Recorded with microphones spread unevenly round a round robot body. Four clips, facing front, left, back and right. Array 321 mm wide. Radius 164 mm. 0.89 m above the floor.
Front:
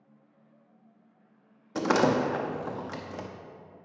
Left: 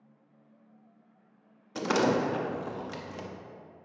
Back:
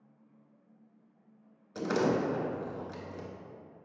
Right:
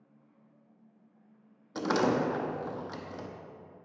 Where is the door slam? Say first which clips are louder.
Left 1 dB, front 5 dB; 5° left, 0.7 m.